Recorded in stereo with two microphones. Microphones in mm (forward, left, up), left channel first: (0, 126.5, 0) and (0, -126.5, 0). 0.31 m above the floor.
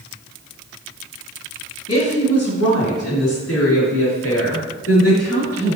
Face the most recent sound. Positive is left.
turn(degrees=75)  # may be behind; listen again after turning